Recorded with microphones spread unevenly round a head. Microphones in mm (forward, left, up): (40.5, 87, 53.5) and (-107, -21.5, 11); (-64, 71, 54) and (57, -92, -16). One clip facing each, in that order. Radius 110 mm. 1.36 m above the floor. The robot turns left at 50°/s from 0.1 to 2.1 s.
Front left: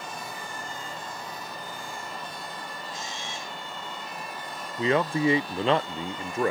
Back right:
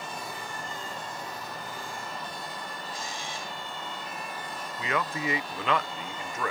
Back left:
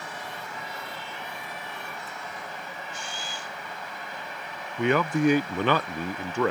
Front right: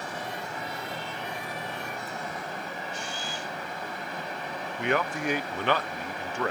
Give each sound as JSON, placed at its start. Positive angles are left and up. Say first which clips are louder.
{"t": 2.9, "sound": "a camera shutter", "louder": "even, front right 3 dB", "azimuth_deg": 100}
{"t": 4.8, "sound": "a man speaking", "louder": "front left 8 dB, back left 6 dB", "azimuth_deg": 100}